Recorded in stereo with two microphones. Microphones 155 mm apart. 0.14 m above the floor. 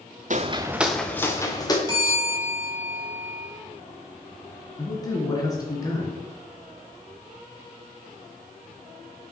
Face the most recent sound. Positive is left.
turn(degrees=25)  # may be behind; listen again after turning